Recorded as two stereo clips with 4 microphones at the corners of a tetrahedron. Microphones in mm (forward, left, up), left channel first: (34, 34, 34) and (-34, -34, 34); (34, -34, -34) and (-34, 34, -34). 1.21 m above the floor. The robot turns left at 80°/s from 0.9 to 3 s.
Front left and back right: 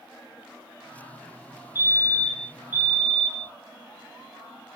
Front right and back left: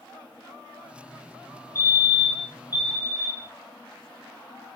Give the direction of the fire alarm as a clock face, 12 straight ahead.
12 o'clock.